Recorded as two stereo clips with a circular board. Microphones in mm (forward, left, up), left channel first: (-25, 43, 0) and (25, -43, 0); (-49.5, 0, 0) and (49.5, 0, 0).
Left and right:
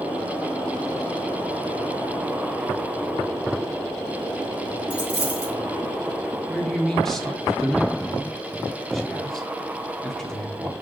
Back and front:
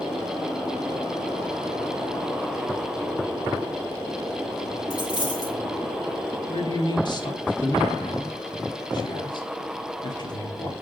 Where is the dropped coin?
135° right, 5 m.